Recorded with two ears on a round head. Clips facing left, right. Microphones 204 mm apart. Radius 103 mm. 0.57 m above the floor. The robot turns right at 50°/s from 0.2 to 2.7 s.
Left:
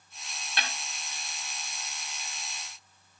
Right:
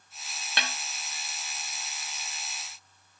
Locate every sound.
0.6 s a snare drum: 60° right (ahead or behind), 2.5 m; by 0.7 s 55° right (ahead or behind), 2.5 m